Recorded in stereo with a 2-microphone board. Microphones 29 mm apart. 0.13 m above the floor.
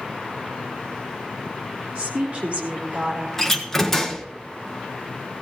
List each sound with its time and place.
1.9 s a woman speaking: 40° right (ahead or behind), 4.5 m; by 3.3 s 35° right (ahead or behind), 5.5 m
3.4 s a door slam: 10° left (ahead or behind), 1.4 m